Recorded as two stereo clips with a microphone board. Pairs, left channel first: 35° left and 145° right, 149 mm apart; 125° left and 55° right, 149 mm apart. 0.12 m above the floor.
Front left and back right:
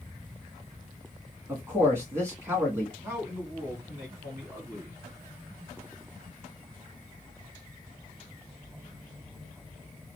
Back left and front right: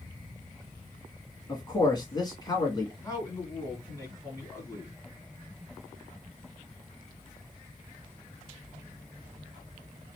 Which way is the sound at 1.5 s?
155° left.